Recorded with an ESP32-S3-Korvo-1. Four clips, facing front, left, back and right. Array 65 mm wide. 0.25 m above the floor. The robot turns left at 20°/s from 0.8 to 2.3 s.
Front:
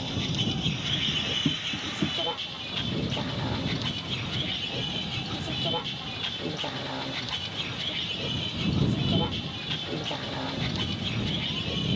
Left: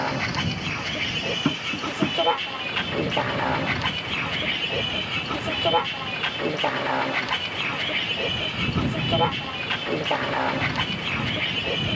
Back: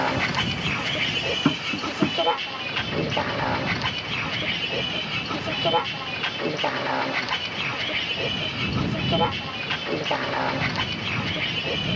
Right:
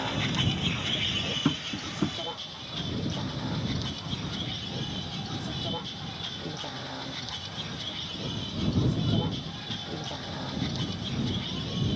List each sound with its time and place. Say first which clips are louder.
0.0 s a vehicle: left 4 dB, back 8 dB; 155° left; by 12.0 s 125° left
1.4 s tapping: left 2 dB, back 7 dB; 165° left; by 2.2 s 150° left